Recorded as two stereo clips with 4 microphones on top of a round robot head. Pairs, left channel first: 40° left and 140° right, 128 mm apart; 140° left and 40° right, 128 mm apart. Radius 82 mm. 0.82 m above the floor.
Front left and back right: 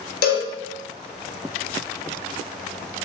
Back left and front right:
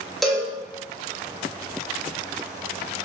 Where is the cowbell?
50° left, 0.6 m.